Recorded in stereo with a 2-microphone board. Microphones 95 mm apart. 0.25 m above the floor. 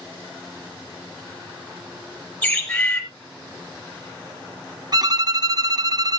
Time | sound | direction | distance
2.4 | a bird | 15° left (ahead or behind) | 5 m
4.9 | a violin | 45° right (ahead or behind) | 0.6 m